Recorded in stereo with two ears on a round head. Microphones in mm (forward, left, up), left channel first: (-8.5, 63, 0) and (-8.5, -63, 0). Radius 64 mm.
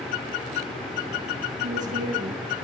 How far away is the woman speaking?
About 6 m.